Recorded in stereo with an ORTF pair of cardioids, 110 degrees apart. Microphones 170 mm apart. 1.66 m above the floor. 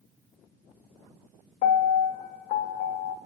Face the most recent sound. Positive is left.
turn(degrees=55)